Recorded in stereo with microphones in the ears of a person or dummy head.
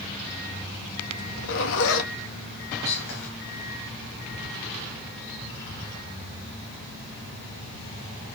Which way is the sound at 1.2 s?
70° left (ahead or behind).